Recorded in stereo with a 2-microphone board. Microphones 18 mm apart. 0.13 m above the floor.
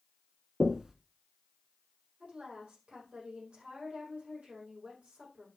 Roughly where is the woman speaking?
Right.